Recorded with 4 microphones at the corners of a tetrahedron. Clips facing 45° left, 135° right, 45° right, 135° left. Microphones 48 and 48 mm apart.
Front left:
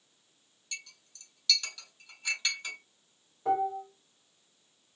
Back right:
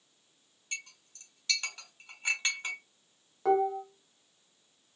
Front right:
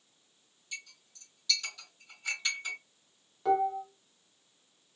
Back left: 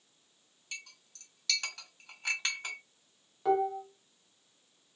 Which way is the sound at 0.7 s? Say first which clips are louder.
Back right 3 dB, front right 1 dB; 170° left.